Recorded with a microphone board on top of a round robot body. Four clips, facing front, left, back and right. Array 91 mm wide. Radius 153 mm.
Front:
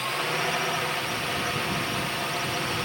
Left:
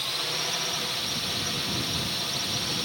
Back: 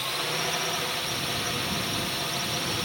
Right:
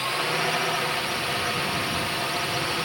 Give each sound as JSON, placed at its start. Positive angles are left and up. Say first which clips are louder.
{"t": 0.0, "sound": "a drone", "louder": "right 8 dB, front 3 dB", "azimuth_deg": -65}